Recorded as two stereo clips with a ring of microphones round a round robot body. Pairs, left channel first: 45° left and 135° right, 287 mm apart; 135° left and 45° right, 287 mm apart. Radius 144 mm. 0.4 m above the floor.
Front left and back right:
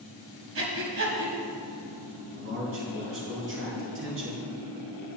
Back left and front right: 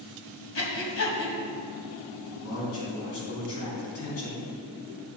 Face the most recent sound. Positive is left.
turn(degrees=175)